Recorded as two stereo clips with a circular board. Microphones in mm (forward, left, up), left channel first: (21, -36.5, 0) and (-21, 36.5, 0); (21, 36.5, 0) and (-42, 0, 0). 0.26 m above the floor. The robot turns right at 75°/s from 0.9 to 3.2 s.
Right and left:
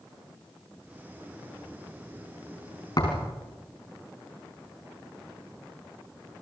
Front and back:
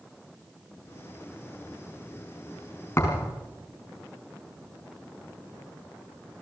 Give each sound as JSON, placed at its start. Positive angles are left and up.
{"t": 3.0, "sound": "a thud", "azimuth_deg": -25, "distance_m": 5.0}